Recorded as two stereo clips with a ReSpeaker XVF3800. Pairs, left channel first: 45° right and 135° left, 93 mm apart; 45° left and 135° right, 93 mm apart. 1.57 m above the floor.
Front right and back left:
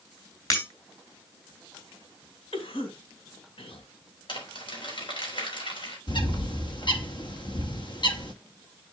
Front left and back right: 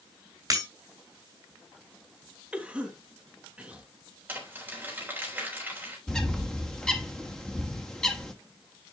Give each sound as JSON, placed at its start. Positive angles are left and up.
{"t": 0.5, "sound": "breaking glass", "azimuth_deg": -90, "distance_m": 3.0}
{"t": 2.5, "sound": "a cough", "azimuth_deg": -60, "distance_m": 2.0}
{"t": 4.3, "sound": "crumpling", "azimuth_deg": -65, "distance_m": 3.5}
{"t": 6.1, "sound": "a bird", "azimuth_deg": -35, "distance_m": 1.4}